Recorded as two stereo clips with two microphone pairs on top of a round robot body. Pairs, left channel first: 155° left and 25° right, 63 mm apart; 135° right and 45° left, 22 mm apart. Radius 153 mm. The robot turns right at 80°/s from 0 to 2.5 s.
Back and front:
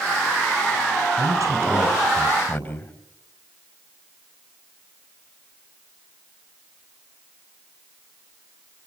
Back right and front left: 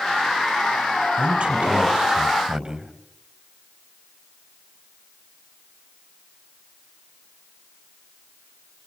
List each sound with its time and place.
1.2 s a man speaking: 10° right, 5 m; by 2.9 s 95° left, 5 m